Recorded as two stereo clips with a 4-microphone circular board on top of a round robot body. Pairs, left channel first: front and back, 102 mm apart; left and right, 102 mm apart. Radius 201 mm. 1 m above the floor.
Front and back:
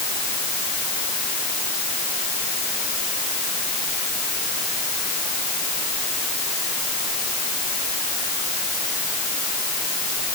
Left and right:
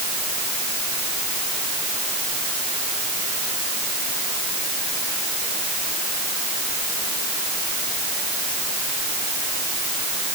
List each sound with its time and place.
Only background noise.